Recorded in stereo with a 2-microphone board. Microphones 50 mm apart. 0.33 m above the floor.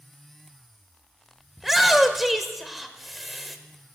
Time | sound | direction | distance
1.6 | a shout | centre (ahead or behind) | 1.0 m